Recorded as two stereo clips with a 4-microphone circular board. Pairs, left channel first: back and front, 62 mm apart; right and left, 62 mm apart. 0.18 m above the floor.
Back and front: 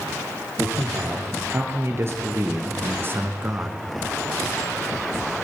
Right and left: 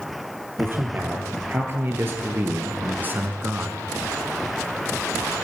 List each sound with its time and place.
0.6 s a man speaking: 40° left, 5.5 m; by 3.9 s 35° left, 1.7 m